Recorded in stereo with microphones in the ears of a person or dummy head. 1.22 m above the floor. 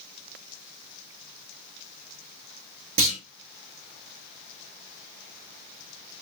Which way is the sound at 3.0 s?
70° right (ahead or behind).